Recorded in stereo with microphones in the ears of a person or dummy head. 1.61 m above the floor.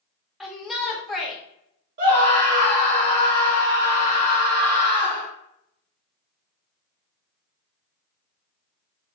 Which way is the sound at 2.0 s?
45° right (ahead or behind).